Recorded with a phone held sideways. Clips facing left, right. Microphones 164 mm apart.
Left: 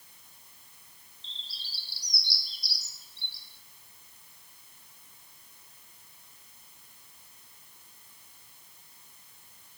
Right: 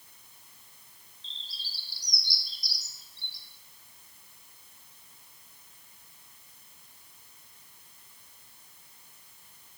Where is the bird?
65° left (ahead or behind), 0.6 m.